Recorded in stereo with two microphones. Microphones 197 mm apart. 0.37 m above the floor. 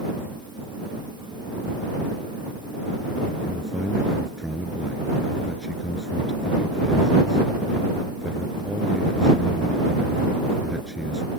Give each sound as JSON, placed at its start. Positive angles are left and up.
{"t": 3.4, "sound": "a man speaking", "side_deg": 0}